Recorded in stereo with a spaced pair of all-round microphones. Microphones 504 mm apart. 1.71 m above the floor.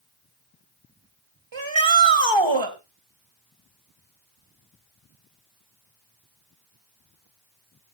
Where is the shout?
60° right (ahead or behind), 2 m.